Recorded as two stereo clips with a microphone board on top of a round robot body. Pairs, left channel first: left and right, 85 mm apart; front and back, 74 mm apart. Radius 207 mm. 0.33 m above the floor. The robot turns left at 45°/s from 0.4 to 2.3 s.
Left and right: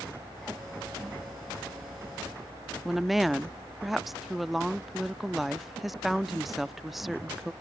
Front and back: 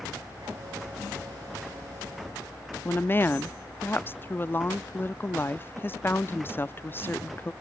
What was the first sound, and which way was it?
A woman speaking, 5° right.